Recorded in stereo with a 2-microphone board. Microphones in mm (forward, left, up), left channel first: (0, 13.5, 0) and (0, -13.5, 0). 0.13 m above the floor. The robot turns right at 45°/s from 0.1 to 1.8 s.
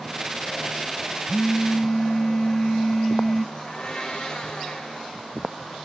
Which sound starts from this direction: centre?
A phone buzzing, at 1.3 s.